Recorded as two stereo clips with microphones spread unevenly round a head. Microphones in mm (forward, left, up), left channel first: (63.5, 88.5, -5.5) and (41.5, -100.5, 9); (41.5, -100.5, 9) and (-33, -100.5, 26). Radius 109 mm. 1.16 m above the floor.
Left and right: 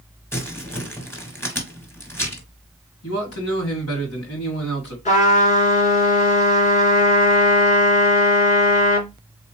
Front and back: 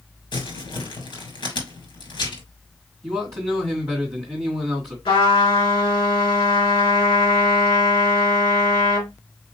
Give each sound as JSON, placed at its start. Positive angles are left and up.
{"t": 0.3, "sound": "crumpling", "azimuth_deg": 5, "distance_m": 3.0}
{"t": 3.0, "sound": "a man speaking", "azimuth_deg": 105, "distance_m": 3.0}
{"t": 5.0, "sound": "a trumpet", "azimuth_deg": 30, "distance_m": 3.0}